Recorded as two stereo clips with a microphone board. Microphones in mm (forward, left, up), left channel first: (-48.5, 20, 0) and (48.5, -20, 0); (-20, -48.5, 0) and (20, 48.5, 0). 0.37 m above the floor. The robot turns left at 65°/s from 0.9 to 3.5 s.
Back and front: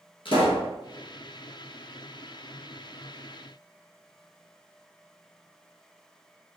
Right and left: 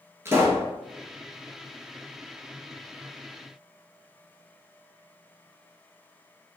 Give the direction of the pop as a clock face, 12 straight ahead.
8 o'clock.